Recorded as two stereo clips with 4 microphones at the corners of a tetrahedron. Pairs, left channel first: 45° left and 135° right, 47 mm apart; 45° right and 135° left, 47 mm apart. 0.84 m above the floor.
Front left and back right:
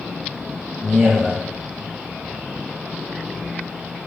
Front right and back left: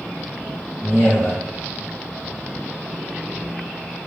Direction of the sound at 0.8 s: 50° right.